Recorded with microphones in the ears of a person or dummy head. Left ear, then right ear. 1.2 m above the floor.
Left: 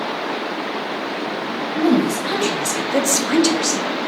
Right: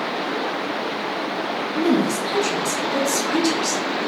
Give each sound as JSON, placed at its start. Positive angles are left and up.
{"t": 1.8, "sound": "a woman speaking", "side_deg": 15, "distance_m": 0.9}